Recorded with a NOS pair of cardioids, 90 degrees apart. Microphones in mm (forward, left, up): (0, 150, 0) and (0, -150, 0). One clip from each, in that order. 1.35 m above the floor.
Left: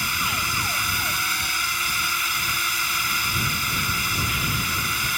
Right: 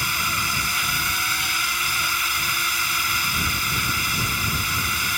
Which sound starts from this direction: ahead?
A drone, at 0.0 s.